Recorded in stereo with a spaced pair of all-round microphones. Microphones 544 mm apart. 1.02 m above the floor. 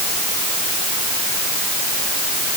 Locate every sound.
Only background noise.